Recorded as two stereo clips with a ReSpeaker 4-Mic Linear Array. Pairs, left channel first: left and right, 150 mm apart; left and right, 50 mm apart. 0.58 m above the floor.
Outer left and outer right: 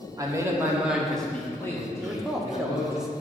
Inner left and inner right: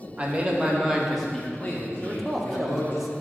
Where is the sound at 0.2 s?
25° right (ahead or behind), 1.5 m; by 3.0 s 35° left (ahead or behind), 2.5 m.